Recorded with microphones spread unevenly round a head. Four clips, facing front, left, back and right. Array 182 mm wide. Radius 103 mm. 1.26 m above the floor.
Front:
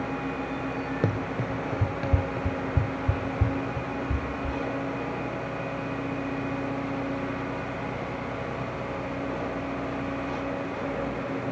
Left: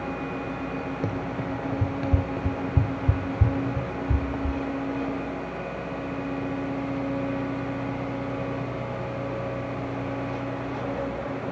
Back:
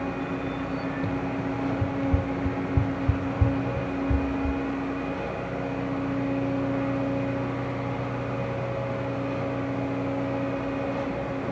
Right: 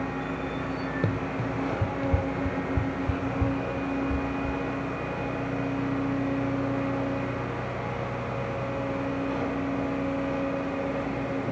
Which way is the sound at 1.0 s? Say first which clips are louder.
Even, back 1 dB; straight ahead.